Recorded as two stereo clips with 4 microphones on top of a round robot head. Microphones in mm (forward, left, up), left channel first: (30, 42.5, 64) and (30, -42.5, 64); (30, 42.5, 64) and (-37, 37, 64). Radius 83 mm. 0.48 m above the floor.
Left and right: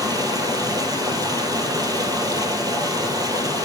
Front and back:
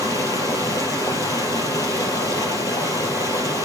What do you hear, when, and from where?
0.0 s running water: 45° right, 3 m